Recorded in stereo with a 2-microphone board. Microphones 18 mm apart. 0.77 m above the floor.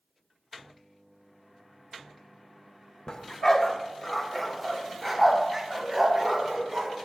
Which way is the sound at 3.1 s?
40° left (ahead or behind).